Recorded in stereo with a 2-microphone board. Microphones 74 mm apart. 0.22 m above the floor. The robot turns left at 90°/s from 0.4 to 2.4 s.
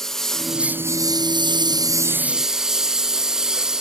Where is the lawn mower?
5° left (ahead or behind); by 3.8 s 10° right (ahead or behind).